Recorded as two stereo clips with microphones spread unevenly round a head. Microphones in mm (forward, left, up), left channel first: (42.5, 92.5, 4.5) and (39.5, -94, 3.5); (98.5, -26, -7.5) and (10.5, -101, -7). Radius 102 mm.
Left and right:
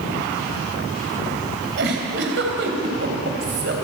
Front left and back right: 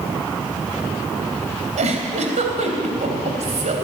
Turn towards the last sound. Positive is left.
turn(degrees=-130)